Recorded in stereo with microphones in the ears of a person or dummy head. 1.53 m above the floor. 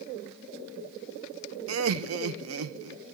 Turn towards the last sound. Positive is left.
turn(degrees=-80)